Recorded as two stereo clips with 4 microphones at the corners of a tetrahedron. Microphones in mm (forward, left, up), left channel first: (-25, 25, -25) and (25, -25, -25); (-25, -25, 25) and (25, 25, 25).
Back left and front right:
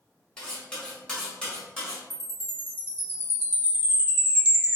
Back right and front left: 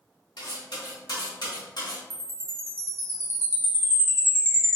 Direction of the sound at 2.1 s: 5° left.